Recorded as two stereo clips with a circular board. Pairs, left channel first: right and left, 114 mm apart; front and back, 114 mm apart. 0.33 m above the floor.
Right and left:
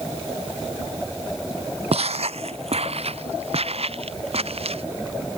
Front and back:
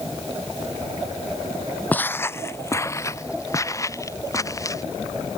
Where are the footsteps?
75° left; by 4.8 s 60° left.